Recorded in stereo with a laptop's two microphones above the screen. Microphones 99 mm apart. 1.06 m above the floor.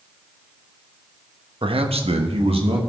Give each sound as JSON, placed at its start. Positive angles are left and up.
{"t": 1.6, "sound": "a man speaking", "side_deg": -60, "distance_m": 1.0}